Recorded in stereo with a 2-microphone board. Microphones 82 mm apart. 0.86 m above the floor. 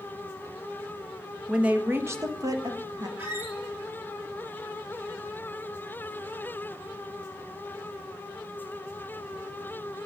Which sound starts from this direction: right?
A squeak, at 3.2 s.